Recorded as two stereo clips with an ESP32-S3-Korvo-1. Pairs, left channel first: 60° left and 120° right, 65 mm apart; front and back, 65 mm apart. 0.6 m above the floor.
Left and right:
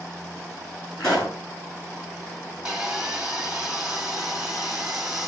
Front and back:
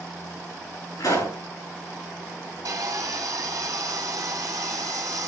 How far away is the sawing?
About 1.7 m.